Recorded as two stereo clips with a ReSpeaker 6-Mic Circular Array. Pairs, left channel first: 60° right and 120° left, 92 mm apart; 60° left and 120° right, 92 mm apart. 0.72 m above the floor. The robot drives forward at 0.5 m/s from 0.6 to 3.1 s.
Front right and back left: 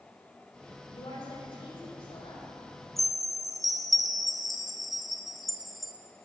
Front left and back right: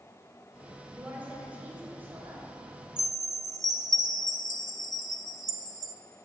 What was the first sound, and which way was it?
A woman speaking, 45° right.